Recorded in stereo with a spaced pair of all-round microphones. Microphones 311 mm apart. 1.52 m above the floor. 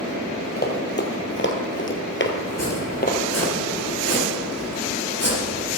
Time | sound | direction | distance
0.6 | running footsteps | 30° left (ahead or behind) | 2.5 m
2.5 | chopping | 50° left (ahead or behind) | 3.5 m